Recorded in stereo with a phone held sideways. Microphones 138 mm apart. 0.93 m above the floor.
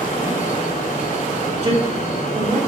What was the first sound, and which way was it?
A fan, 80° left.